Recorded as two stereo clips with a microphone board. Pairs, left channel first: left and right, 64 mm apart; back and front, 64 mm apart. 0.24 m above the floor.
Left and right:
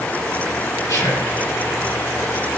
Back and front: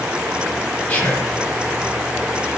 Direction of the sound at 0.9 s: 120° left.